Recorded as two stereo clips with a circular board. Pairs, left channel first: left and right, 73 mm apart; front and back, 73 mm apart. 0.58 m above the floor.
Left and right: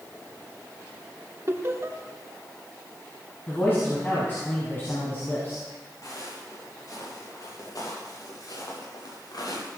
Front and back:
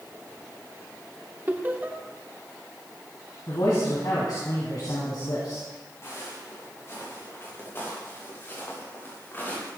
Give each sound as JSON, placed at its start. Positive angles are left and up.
{"t": 1.5, "sound": "laughter", "azimuth_deg": -125, "distance_m": 1.8}
{"t": 3.5, "sound": "a man speaking", "azimuth_deg": 30, "distance_m": 5.0}
{"t": 6.0, "sound": "footsteps", "azimuth_deg": 55, "distance_m": 8.0}